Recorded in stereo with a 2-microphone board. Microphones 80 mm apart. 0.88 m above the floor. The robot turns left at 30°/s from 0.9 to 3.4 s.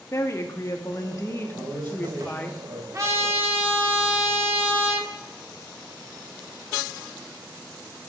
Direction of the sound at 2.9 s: 40° right (ahead or behind).